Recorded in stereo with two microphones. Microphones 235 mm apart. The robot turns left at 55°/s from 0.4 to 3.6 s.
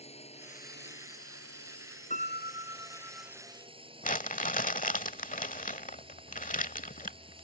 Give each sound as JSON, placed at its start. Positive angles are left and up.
{"t": 0.0, "sound": "a drone", "azimuth_deg": 155}
{"t": 2.1, "sound": "a piano", "azimuth_deg": 145}
{"t": 4.0, "sound": "crumpling", "side_deg": 35}